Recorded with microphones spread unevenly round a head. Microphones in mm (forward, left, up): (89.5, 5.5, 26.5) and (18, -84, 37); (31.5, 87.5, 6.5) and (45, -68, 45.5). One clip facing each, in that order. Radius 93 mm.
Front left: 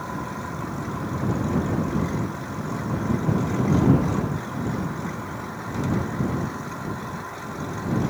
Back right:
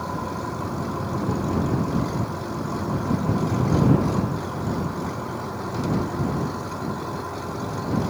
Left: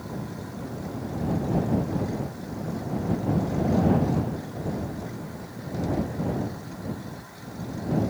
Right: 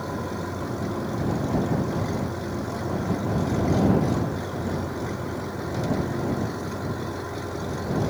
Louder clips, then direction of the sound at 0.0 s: Back right 3 dB, right 5 dB; 65° right.